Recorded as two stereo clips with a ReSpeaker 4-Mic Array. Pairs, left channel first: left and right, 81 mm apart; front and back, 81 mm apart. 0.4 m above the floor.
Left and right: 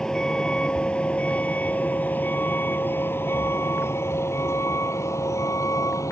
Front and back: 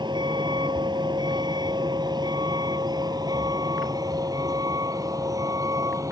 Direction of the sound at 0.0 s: 175° left.